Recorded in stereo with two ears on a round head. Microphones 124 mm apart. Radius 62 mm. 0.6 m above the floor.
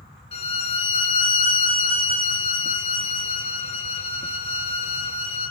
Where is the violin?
45° left (ahead or behind), 1.2 m.